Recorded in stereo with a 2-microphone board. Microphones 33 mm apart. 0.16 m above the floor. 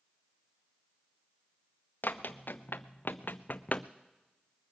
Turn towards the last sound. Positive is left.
turn(degrees=35)  # may be behind; listen again after turning